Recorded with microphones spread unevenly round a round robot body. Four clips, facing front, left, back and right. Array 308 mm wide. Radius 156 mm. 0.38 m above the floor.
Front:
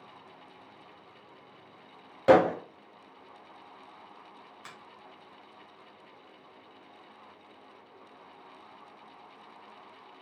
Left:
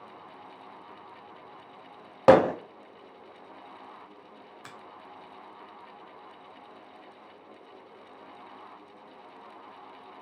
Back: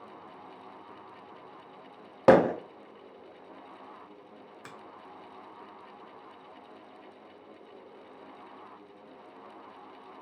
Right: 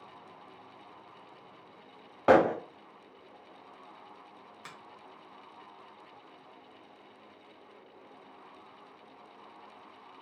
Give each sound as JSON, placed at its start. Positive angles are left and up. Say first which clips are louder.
{"t": 2.3, "sound": "hammering", "louder": "left 4 dB, back 1 dB", "azimuth_deg": 140, "distance_m": 0.7}
{"t": 4.6, "sound": "a finger snap", "louder": "left 1 dB, back 2 dB", "azimuth_deg": 170, "distance_m": 1.4}